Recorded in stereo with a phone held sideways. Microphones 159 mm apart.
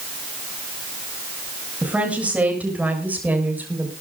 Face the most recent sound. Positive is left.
turn(degrees=-10)  # may be behind; listen again after turning